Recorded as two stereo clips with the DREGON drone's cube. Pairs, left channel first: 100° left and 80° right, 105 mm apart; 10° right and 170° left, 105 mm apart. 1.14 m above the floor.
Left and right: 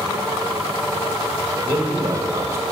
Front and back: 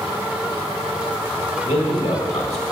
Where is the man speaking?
15° right, 1.5 m.